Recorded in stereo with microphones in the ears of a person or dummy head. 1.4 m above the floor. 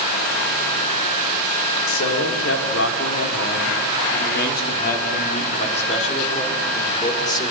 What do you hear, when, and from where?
1.9 s a man speaking: 85° left, 5.5 m; by 7.5 s 20° left (ahead or behind), 6 m